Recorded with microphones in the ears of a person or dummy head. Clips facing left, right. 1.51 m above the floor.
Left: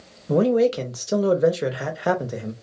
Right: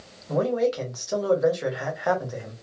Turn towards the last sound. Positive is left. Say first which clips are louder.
# left 5 dB
turn(degrees=40)  # may be behind; listen again after turning